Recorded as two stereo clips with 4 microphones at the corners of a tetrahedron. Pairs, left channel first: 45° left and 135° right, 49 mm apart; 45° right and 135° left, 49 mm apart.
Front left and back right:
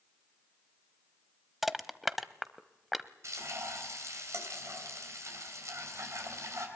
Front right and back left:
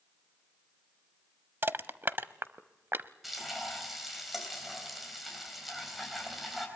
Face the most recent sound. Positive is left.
turn(degrees=-135)